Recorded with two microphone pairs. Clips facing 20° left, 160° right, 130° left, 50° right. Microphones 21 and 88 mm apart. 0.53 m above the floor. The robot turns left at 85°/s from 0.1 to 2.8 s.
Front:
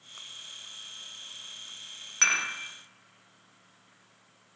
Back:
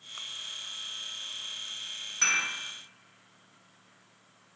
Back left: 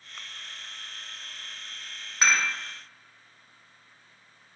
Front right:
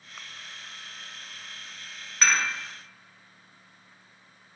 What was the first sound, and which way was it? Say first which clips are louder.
Dishes clattering: front 2 dB, even; 65° left.